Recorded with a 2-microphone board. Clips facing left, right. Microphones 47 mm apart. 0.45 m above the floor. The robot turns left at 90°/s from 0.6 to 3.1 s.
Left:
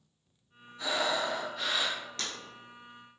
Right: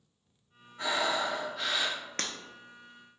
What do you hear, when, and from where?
0.8 s breathing: 105° right, 1.2 m; by 2.0 s 150° left, 1.2 m
2.2 s breaking glass: 55° right (ahead or behind), 0.6 m; by 2.3 s 60° right (ahead or behind), 0.6 m